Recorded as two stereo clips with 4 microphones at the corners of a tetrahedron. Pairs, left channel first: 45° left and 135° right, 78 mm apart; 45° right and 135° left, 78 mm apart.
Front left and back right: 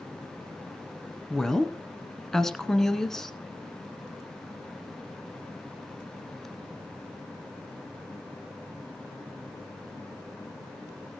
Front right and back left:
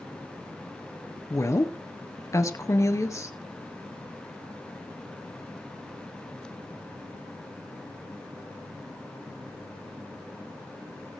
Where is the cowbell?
I don't hear a cowbell.